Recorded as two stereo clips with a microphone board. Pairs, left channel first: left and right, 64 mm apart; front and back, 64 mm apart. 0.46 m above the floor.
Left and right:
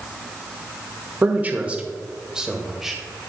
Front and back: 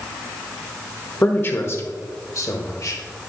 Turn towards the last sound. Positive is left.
turn(degrees=0)